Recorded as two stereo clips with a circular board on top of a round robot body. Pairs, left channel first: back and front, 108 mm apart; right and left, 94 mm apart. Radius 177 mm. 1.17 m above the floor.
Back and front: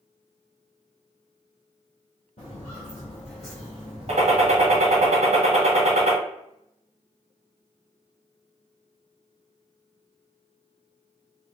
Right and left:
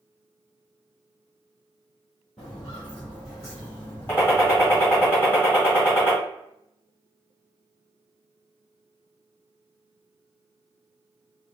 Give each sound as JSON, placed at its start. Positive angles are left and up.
{"t": 2.4, "sound": "footsteps", "azimuth_deg": 175, "distance_m": 1.2}
{"t": 4.1, "sound": "a gunshot", "azimuth_deg": -20, "distance_m": 1.3}